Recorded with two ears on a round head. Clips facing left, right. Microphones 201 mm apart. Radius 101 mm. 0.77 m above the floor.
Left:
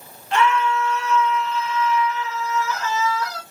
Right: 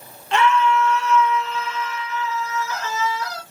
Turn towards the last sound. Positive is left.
turn(degrees=-25)  # may be behind; listen again after turning